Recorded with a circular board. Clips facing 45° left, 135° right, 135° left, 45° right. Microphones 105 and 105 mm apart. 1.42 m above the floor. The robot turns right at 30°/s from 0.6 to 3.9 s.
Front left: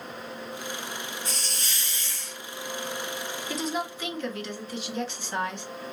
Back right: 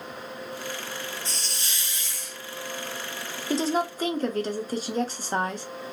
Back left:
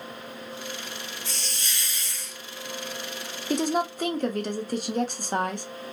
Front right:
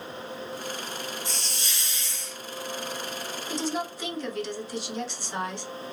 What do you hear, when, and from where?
1.2 s a hiss: 100° right, 1.3 m; by 2.4 s 65° right, 1.3 m
3.5 s a woman speaking: 165° left, 0.6 m; by 5.7 s 175° left, 0.6 m